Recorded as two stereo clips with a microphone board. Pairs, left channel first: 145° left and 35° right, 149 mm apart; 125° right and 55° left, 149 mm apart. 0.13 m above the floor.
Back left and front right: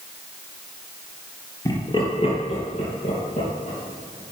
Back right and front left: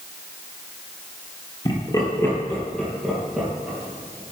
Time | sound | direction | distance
1.6 | laughter | 160° right | 2 m